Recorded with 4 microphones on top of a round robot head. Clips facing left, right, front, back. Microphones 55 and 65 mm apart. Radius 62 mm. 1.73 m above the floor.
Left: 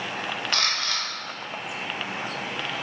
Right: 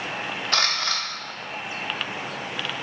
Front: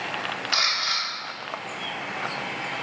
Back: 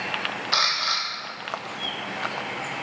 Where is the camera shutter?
125° right, 0.7 m.